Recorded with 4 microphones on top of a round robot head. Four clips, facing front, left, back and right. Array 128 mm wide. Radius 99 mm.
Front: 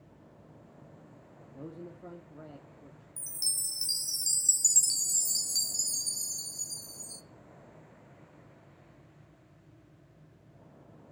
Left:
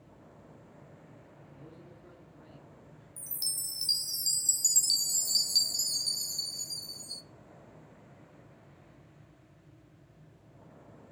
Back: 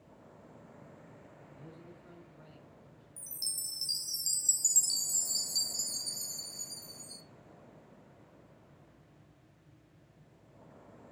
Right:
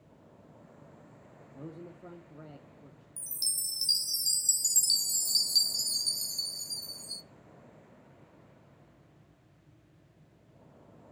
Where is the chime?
25° right, 0.7 m.